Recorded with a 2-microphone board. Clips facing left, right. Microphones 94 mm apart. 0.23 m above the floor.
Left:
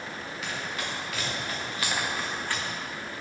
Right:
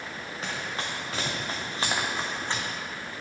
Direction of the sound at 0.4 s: 40° right (ahead or behind).